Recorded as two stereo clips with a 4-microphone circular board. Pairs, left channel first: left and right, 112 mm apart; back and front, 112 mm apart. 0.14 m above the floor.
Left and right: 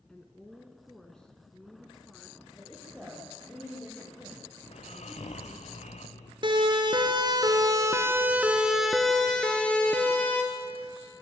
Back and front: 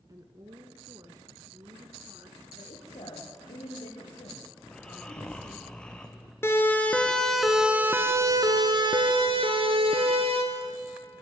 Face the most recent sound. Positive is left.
turn(degrees=20)